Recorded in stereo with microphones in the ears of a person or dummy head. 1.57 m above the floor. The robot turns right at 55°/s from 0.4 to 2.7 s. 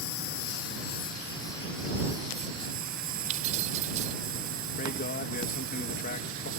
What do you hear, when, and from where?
0.0 s a lawn mower: 100° left; by 6.6 s 135° right
3.3 s keys jangling: 40° right (ahead or behind)
4.8 s a man speaking: 50° left (ahead or behind)